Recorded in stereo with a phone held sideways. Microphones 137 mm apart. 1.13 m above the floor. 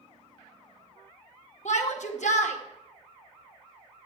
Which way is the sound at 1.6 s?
60° left (ahead or behind).